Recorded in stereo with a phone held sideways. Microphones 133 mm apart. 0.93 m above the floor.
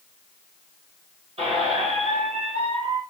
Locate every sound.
1.4 s a squeak: 50° right (ahead or behind), 1.7 m